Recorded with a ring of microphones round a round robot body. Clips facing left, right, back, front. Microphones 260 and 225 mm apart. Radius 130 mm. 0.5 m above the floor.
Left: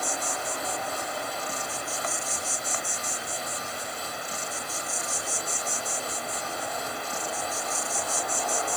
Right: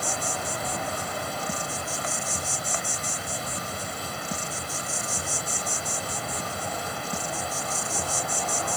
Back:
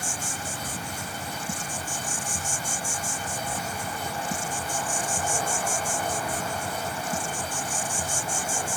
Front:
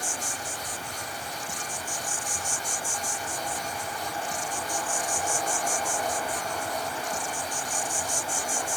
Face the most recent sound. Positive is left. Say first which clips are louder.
# right 1 dB, back 1 dB
turn(degrees=-150)